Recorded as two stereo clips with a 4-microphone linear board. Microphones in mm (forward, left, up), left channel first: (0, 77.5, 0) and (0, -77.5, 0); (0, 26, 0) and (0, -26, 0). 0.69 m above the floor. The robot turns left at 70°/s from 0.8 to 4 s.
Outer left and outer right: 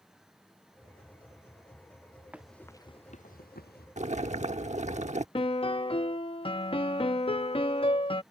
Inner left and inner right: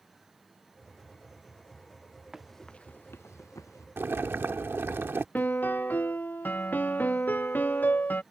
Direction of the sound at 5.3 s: 35° left (ahead or behind).